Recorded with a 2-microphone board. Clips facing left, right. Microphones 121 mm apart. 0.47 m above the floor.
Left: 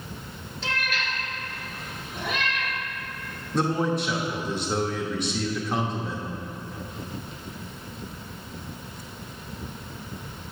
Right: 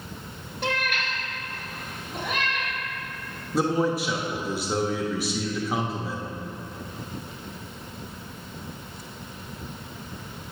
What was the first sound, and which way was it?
A cat meowing, 65° right (ahead or behind).